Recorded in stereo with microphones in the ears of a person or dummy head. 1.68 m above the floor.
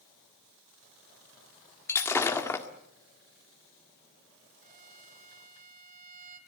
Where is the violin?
40° right (ahead or behind), 3 m.